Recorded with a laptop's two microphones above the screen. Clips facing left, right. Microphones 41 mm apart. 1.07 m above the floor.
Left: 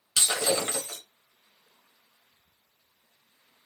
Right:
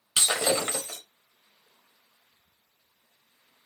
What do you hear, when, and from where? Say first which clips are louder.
0.2 s breaking glass: right 1 dB; 25° right (ahead or behind), 0.9 m